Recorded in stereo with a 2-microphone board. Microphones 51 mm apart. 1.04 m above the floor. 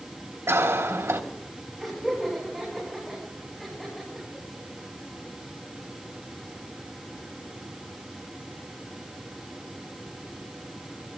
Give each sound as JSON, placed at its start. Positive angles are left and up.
{"t": 0.5, "sound": "a cough", "side_deg": -70, "distance_m": 2.5}
{"t": 1.8, "sound": "laughter", "side_deg": 5, "distance_m": 8.0}